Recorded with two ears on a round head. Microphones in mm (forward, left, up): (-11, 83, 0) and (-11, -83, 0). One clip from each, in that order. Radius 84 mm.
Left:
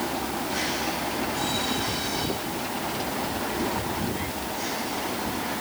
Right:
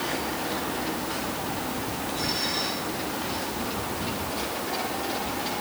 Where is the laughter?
I don't hear laughter.